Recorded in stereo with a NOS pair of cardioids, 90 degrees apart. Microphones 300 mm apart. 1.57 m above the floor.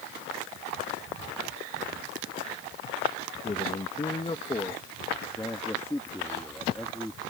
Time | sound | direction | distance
3.4 | a man speaking | 25° left | ?